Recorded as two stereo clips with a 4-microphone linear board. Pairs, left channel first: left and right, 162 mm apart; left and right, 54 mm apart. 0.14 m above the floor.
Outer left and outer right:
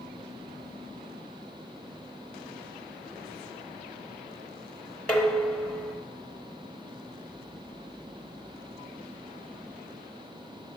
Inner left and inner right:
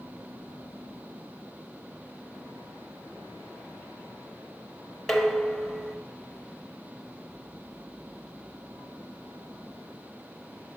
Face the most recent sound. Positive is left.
turn(degrees=5)  # may be behind; listen again after turning